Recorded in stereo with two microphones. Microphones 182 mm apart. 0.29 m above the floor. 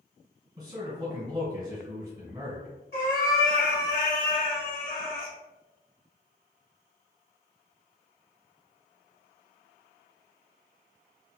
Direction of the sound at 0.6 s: 20° right (ahead or behind).